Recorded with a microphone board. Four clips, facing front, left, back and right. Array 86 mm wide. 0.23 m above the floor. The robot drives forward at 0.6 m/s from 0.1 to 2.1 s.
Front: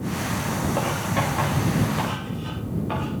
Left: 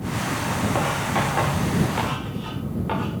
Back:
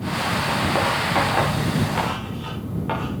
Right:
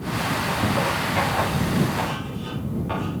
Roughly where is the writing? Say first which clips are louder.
Even, back 5 dB; behind.